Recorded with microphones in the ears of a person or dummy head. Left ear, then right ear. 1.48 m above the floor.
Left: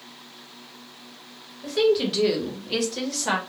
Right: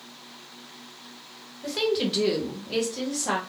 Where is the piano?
No piano in this recording.